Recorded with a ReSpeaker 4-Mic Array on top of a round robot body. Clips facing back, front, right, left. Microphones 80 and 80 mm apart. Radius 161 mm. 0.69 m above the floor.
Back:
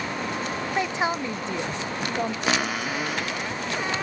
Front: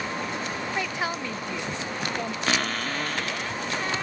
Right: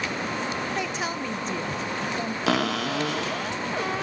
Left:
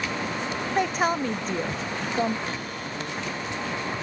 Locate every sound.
0.8 s a woman speaking: 115° left
2.5 s a cupboard door: 100° right